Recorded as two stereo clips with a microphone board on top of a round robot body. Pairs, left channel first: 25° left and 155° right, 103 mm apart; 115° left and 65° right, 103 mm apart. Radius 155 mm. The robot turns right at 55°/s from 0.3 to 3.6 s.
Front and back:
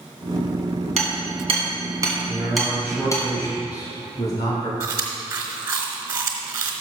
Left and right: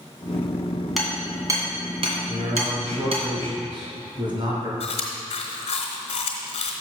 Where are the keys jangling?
No keys jangling in this recording.